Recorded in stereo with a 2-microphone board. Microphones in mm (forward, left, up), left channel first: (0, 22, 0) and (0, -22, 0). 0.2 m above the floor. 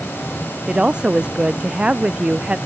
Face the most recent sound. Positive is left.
turn(degrees=-25)  # may be behind; listen again after turning